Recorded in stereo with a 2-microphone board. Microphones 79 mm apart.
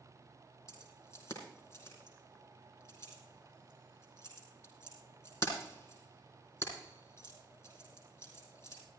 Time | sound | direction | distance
0.7 | keys jangling | 45° left (ahead or behind) | 4 m